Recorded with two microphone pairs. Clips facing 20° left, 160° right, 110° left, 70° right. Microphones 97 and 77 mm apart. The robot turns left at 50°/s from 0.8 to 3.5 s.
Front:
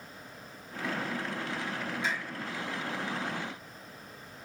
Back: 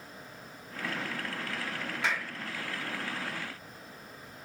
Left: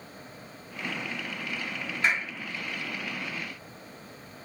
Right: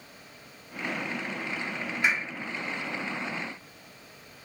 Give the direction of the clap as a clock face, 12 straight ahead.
5 o'clock.